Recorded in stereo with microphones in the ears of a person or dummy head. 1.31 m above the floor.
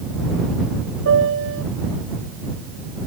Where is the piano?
75° right (ahead or behind).